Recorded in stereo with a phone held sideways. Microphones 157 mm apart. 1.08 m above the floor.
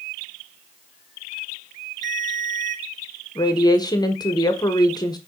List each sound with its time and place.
2.0 s a ringtone: 50° right (ahead or behind), 1.1 m
3.4 s a woman speaking: 25° left (ahead or behind), 1.0 m